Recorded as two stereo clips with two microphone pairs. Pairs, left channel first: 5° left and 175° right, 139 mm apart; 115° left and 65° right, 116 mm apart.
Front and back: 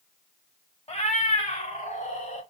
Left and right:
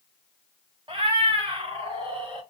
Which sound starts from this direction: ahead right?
A cat meowing, at 0.9 s.